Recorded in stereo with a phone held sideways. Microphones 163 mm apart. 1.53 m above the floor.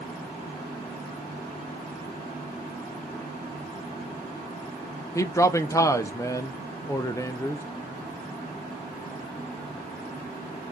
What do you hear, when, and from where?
5.2 s a man speaking: 20° left (ahead or behind), 0.6 m